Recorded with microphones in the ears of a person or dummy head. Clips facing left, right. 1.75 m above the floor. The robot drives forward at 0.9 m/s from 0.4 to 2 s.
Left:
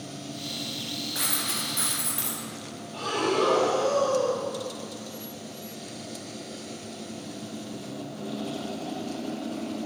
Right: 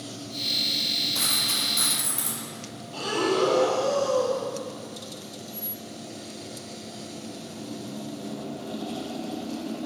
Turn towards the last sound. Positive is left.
turn(degrees=-40)  # may be behind; listen again after turning